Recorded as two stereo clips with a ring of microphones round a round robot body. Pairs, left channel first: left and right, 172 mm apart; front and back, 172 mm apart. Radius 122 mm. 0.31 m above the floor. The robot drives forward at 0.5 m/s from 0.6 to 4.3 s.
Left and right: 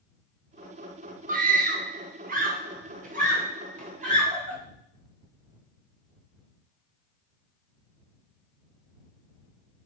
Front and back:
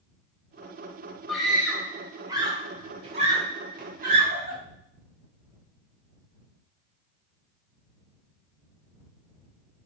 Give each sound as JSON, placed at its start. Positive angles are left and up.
{"t": 1.3, "sound": "a scream", "azimuth_deg": -90, "distance_m": 1.6}